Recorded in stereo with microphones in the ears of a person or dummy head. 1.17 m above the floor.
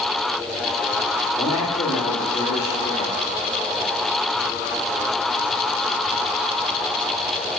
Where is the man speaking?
40° left (ahead or behind), 2 m.